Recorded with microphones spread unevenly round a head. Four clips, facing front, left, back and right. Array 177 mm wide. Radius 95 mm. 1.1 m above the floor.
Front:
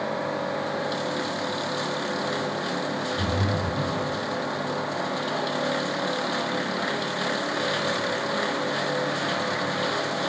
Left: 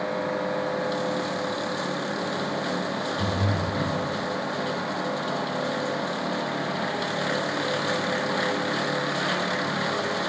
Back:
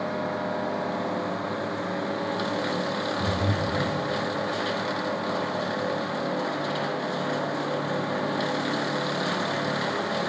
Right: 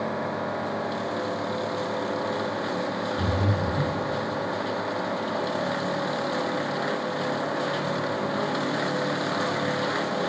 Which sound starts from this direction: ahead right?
Breathing, at 3.2 s.